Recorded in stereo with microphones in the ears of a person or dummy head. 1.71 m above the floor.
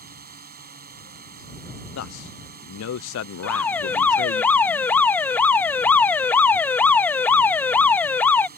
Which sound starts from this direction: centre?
An alarm, at 3.4 s.